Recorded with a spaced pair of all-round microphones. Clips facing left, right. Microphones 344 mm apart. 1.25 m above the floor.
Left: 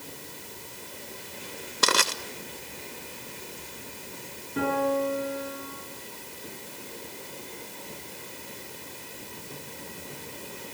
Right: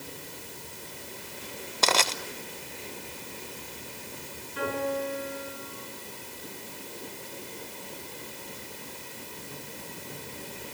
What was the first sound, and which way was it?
Crushing, 20° left (ahead or behind).